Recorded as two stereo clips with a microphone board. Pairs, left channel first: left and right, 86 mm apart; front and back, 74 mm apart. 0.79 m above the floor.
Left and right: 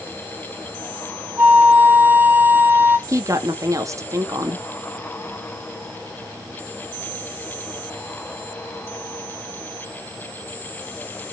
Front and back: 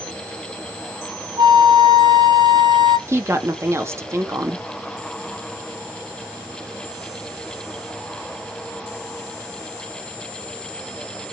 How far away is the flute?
About 1.1 m.